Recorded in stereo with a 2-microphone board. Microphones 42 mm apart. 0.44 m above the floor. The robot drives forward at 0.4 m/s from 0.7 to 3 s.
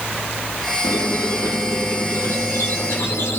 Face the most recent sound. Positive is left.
turn(degrees=75)  # may be behind; listen again after turning